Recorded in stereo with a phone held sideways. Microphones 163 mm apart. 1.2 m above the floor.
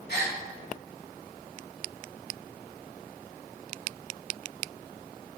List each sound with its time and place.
0.1 s a gasp: 75° left (ahead or behind), 2.5 m